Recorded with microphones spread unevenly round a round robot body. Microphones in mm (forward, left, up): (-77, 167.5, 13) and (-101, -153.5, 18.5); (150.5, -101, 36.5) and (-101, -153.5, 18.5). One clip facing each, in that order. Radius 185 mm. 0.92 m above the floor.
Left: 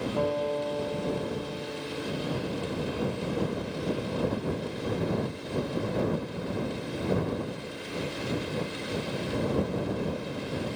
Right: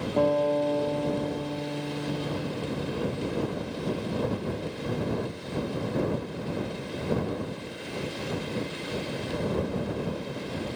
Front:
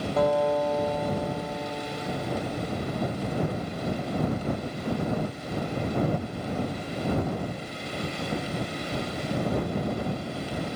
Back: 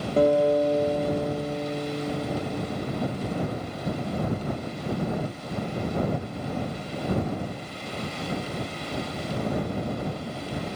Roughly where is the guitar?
Right.